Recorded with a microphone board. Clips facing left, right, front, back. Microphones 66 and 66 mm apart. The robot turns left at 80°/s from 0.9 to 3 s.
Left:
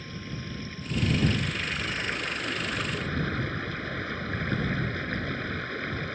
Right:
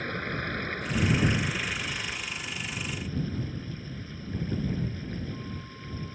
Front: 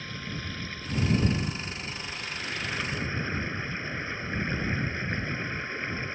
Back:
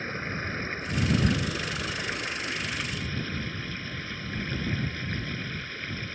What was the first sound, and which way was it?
Running water, 125° right.